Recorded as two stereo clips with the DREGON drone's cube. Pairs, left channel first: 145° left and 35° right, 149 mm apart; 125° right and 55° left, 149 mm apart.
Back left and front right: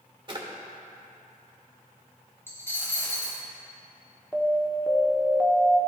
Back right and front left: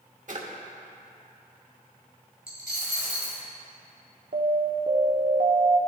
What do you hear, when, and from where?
0.3 s a drawer: 25° left, 1.1 m
2.5 s a dropped coin: 140° right, 1.7 m
4.3 s an alarm: 60° left, 1.1 m